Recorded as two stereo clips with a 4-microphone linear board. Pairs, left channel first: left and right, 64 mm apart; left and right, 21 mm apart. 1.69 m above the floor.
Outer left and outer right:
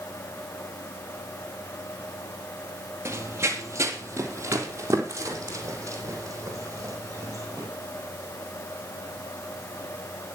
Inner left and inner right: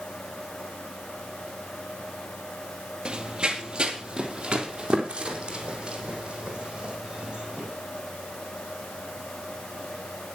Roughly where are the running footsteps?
Right.